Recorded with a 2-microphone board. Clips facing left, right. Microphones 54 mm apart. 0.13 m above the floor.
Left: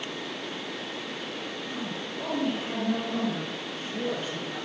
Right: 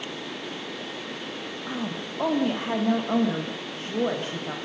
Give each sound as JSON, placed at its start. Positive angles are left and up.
{"t": 1.7, "sound": "a woman speaking", "side_deg": -75, "distance_m": 6.0}